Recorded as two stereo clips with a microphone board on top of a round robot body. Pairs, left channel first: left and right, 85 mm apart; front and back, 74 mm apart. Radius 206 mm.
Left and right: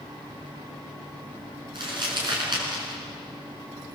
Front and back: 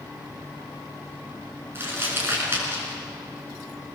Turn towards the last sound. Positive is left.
turn(degrees=-120)